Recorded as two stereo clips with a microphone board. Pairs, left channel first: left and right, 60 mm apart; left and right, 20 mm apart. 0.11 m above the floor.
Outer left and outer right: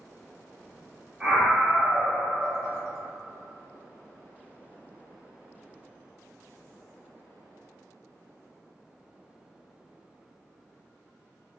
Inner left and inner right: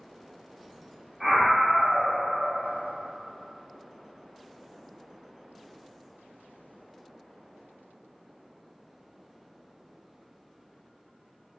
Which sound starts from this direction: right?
A scream, at 1.2 s.